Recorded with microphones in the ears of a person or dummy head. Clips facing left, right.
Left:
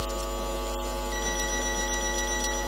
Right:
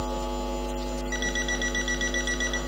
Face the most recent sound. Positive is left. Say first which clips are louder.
# even
turn(degrees=-30)  # may be behind; listen again after turning